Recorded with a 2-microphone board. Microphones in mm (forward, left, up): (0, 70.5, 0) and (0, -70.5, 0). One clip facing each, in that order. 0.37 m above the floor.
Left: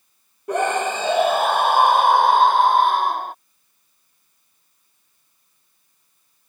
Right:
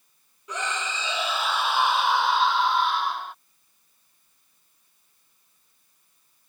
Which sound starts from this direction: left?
A scream, at 0.5 s.